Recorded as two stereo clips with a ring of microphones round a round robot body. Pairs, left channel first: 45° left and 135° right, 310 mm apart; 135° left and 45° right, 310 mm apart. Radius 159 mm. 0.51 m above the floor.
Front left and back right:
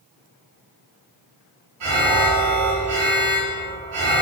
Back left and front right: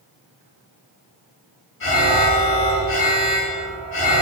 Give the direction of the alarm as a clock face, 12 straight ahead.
6 o'clock.